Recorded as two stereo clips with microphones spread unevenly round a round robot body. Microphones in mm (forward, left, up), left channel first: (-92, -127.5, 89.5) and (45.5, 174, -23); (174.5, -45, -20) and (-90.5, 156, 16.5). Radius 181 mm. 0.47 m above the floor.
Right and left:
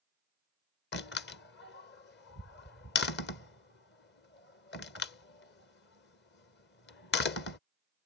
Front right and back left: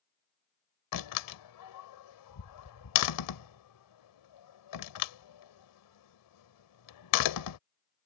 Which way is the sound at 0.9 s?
45° right.